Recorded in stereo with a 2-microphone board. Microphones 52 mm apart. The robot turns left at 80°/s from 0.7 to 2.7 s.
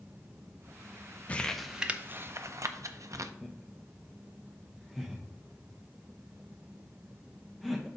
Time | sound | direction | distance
1.3 | crumpling | 25° left (ahead or behind) | 0.5 m
3.4 | laughter | centre (ahead or behind) | 0.7 m